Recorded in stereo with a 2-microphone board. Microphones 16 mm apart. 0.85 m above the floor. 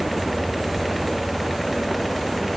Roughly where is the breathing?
No breathing in this recording.